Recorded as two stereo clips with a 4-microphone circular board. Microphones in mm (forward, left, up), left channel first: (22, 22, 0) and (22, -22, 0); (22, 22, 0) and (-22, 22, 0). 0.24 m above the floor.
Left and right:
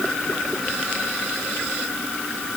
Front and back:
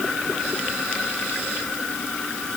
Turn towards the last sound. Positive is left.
No sound to turn to.